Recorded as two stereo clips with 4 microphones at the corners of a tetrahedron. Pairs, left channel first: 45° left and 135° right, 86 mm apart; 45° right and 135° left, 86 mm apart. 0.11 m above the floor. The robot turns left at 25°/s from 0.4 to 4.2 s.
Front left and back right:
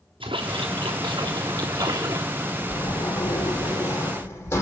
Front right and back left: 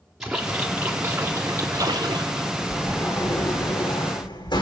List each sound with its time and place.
0.2 s a splash: 140° right, 3.5 m; by 2.5 s 170° left, 3.5 m
2.7 s a sliding door: 20° left, 5.5 m; by 4.6 s 20° right, 5.5 m